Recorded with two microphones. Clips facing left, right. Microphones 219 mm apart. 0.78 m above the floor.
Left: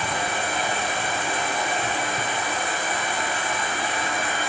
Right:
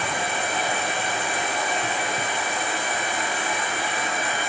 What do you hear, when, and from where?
0.0 s an insect: 20° right (ahead or behind), 1.6 m